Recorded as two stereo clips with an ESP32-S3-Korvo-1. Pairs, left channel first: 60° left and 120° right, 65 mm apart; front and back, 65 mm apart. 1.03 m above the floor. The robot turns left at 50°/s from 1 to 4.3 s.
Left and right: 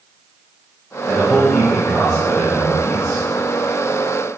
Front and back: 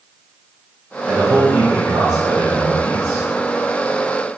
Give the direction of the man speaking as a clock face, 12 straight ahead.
5 o'clock.